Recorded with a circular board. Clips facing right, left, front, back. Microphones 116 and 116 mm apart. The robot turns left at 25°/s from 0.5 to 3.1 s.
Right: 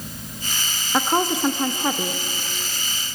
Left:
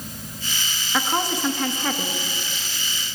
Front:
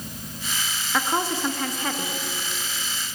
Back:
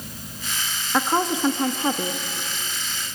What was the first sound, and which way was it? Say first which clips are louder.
A woman speaking: right 3 dB, back 3 dB; 120° right.